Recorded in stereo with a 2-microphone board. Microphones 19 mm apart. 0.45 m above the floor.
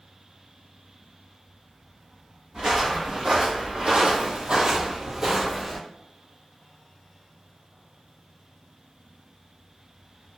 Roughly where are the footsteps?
Right.